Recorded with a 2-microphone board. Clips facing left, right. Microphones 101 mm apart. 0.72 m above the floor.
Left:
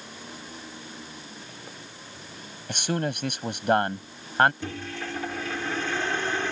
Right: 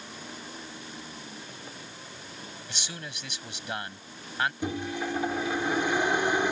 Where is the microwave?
15° right (ahead or behind).